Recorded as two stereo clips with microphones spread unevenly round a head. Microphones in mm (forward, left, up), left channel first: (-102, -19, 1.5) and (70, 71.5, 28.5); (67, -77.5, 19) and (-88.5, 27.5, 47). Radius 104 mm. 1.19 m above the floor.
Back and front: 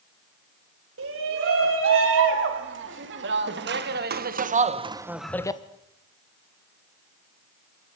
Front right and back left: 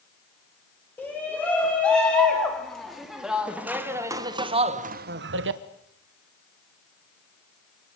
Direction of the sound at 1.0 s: 45° left.